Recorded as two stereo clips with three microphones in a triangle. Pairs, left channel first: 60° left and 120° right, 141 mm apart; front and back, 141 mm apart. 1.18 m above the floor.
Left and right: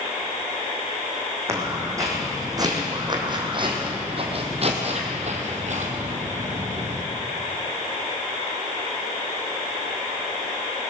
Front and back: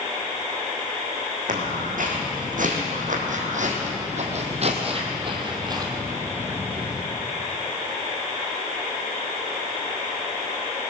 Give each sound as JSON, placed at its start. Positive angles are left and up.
{"t": 1.5, "sound": "footsteps", "azimuth_deg": 170, "distance_m": 4.0}